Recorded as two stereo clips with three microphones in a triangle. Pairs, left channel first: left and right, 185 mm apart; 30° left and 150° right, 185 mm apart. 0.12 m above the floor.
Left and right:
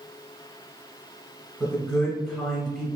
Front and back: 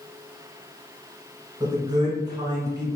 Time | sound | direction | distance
1.6 | a man speaking | 175° left | 1.3 m